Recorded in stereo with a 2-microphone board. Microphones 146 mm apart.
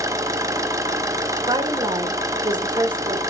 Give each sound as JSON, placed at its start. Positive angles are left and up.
{"t": 0.0, "sound": "an engine running", "side_deg": -20, "distance_m": 0.8}
{"t": 1.5, "sound": "a woman speaking", "side_deg": -35, "distance_m": 1.5}